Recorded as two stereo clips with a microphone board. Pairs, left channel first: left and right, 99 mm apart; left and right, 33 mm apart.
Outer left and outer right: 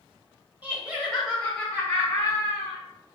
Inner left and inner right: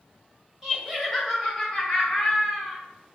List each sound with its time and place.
0.6 s laughter: 15° right (ahead or behind), 1.2 m; by 2.8 s 30° left (ahead or behind), 1.6 m